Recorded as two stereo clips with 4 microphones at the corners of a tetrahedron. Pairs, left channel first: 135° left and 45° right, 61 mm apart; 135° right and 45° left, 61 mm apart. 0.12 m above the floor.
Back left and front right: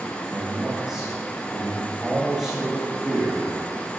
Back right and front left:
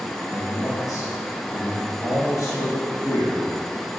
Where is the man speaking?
120° right, 2.5 m.